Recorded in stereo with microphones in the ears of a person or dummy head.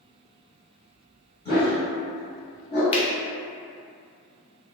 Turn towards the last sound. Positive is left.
turn(degrees=30)  # may be behind; listen again after turning